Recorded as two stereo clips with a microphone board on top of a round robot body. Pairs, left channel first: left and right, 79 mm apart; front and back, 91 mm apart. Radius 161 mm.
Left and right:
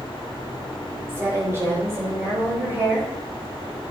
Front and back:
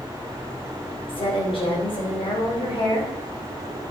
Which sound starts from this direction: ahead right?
A woman speaking, at 1.1 s.